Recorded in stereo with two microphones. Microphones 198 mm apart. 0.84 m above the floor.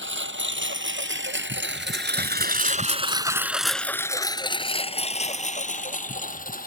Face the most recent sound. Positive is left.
turn(degrees=45)  # may be behind; listen again after turning